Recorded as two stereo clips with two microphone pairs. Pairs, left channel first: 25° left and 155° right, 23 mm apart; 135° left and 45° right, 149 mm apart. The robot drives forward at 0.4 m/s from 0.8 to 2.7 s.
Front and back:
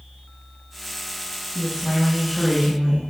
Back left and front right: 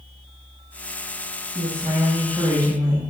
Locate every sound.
1.6 s a woman speaking: 85° right, 1.1 m; by 3.0 s 110° right, 1.1 m